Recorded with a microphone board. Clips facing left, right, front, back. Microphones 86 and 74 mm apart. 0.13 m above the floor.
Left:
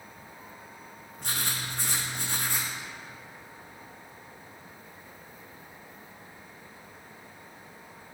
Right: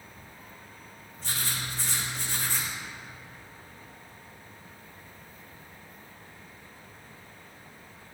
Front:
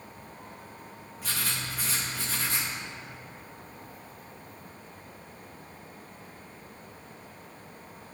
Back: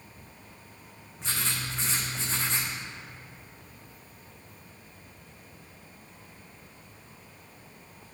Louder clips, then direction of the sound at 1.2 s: Left 1 dB, back 1 dB; 115° left.